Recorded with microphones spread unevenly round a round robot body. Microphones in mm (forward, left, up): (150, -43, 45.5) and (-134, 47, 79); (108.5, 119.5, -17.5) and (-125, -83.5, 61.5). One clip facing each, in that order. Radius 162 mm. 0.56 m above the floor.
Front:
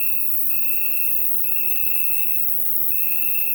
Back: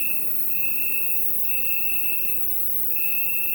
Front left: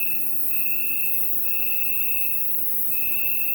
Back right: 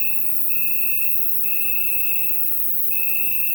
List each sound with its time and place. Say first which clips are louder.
0.0 s an insect: back 1 dB, back right 1 dB; 60° right, 0.7 m